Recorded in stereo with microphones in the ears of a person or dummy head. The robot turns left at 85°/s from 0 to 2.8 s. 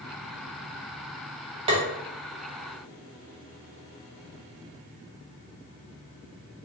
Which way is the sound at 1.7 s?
25° right (ahead or behind).